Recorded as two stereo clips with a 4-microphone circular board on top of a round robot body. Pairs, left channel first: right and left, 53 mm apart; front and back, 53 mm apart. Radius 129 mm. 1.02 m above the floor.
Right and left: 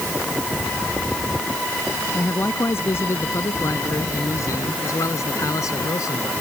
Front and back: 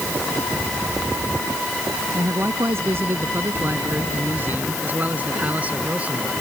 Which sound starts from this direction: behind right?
A man speaking, at 2.1 s.